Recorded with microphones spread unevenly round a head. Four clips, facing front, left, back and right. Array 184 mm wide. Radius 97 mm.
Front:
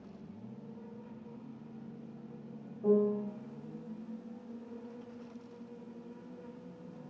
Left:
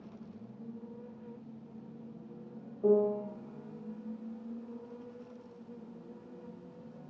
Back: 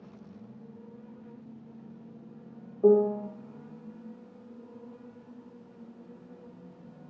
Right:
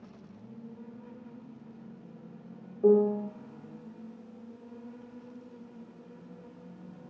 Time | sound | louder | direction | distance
2.8 | a piano | right 4 dB, back 7 dB | 160° right | 1.2 m